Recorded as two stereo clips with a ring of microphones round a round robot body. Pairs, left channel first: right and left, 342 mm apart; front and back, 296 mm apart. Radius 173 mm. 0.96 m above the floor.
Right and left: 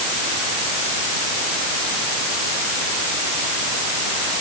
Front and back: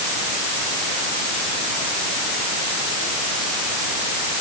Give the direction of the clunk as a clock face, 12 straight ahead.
I don't hear a clunk.